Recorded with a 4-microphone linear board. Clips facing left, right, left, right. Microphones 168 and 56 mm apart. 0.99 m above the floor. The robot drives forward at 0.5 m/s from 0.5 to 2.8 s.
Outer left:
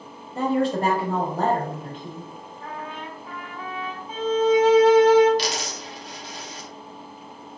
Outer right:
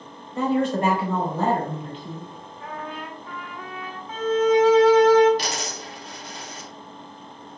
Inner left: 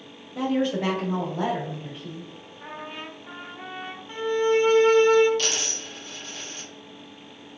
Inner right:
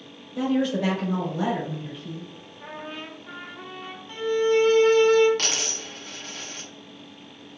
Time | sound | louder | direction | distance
0.3 | a woman speaking | even, inner right 1 dB | 30° left (ahead or behind) | 1.8 m
2.6 | a trumpet | outer right 1 dB, even | 25° left (ahead or behind) | 1.2 m
4.1 | a violin | even, inner right 1 dB | 15° left (ahead or behind) | 0.8 m
5.4 | a dropped coin | outer left 2 dB, even | 50° right (ahead or behind) | 1.0 m